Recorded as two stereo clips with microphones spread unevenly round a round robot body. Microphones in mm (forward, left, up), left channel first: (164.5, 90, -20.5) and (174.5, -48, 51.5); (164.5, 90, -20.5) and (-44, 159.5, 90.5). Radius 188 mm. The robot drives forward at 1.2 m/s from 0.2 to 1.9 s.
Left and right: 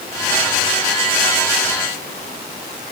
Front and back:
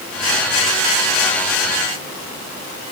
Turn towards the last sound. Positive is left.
No sound to turn to.